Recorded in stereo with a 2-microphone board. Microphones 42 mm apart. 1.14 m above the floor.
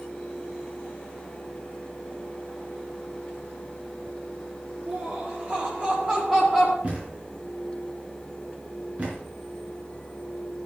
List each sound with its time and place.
4.9 s laughter: 40° right (ahead or behind), 2.5 m; by 6.7 s 15° right (ahead or behind), 2.5 m
6.8 s a thud: 35° right (ahead or behind), 4.5 m